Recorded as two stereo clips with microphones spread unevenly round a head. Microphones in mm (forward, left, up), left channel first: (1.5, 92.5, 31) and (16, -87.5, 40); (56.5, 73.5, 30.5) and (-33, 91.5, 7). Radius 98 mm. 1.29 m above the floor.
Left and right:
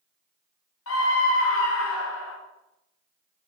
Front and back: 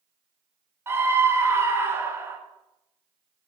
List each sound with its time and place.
0.9 s a scream: 105° left, 2 m